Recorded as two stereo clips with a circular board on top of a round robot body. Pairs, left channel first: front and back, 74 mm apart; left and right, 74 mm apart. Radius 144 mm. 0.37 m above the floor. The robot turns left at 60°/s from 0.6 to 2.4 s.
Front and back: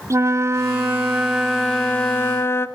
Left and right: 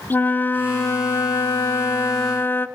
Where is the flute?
145° left, 0.6 m; by 2.7 s 40° left, 0.6 m.